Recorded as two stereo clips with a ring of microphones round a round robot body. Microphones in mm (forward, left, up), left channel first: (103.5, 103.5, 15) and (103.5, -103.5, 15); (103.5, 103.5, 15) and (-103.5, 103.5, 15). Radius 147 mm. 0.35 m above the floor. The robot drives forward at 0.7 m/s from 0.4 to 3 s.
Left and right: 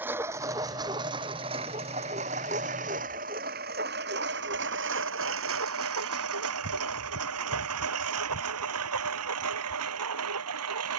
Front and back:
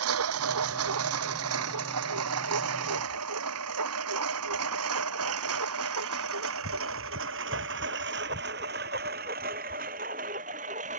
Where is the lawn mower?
175° right; by 11.0 s 110° right.